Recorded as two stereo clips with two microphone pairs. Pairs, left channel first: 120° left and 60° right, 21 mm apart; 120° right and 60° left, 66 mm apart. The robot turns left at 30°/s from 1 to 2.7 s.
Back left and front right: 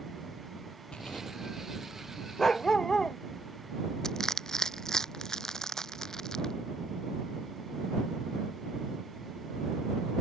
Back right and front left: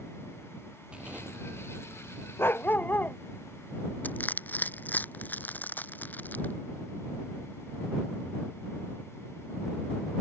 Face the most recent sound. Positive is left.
turn(degrees=180)